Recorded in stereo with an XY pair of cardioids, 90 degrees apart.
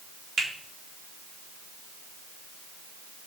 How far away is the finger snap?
About 3 m.